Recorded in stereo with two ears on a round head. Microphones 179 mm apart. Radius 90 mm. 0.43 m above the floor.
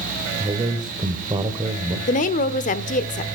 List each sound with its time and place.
0.4 s a man speaking: 25° right (ahead or behind), 1.5 m
2.1 s a woman speaking: 40° left (ahead or behind), 1.0 m